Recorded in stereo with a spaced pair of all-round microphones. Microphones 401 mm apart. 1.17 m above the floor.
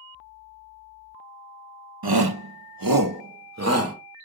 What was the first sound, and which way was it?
A shout, 70° right (ahead or behind).